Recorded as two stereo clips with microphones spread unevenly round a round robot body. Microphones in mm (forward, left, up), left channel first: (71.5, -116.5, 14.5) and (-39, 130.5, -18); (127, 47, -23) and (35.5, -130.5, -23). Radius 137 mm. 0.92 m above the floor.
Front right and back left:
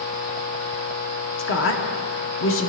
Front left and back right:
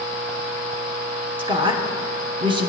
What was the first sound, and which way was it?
A woman speaking, 65° right.